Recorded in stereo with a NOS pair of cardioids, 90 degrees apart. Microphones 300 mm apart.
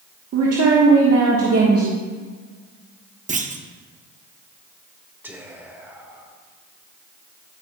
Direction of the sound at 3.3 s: 25° right.